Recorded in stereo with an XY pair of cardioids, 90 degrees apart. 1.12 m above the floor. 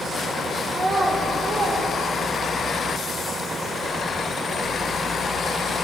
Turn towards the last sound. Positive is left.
turn(degrees=-60)